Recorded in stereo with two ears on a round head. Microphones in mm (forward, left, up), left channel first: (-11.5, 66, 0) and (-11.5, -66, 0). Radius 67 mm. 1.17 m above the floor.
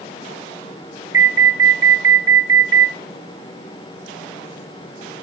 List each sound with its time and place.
1.1 s an alarm: 20° right (ahead or behind), 1.5 m